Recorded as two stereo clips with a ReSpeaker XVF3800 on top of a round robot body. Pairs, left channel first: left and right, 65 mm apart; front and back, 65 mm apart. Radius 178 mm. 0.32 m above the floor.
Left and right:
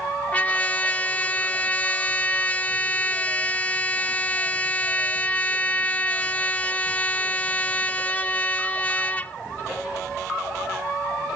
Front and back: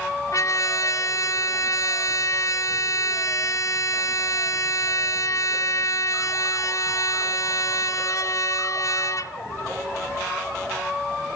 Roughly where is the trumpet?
Ahead.